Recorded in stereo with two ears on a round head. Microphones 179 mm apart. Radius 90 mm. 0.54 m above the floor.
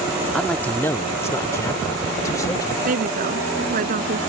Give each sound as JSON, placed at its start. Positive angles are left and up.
{"t": 0.3, "sound": "a man speaking", "side_deg": 5}
{"t": 2.9, "sound": "a woman speaking", "side_deg": -45}